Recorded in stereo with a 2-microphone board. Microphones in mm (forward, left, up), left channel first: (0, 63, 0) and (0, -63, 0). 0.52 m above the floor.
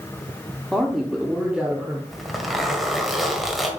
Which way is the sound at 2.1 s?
Centre (ahead or behind).